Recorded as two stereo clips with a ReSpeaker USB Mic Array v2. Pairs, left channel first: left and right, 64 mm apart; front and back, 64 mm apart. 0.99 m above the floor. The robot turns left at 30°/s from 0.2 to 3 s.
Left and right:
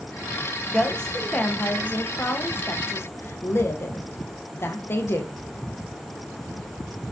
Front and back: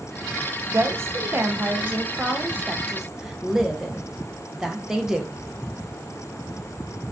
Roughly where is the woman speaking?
Behind.